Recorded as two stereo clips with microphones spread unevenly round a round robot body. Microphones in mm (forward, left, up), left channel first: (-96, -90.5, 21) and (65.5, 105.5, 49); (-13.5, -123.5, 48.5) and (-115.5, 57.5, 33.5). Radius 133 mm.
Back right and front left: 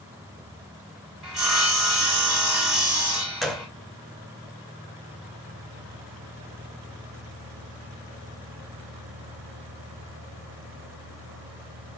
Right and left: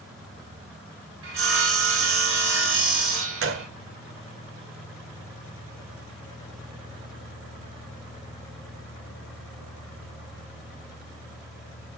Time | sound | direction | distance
1.2 | sawing | 135° left | 5.5 m
3.4 | a gunshot | 140° left | 2 m